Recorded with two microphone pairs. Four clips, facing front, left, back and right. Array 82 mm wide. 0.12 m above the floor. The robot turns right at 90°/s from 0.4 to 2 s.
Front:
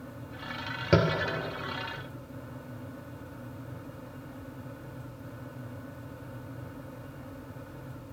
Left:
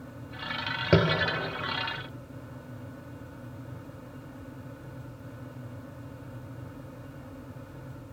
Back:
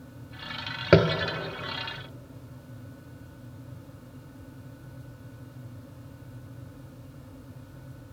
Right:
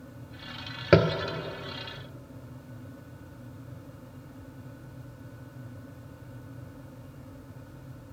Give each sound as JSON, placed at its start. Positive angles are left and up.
{"t": 0.9, "sound": "tapping", "azimuth_deg": -150, "distance_m": 0.5}